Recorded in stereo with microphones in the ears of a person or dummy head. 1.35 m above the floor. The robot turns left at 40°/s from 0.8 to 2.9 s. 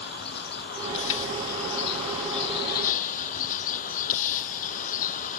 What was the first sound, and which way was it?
A vehicle, 130° left.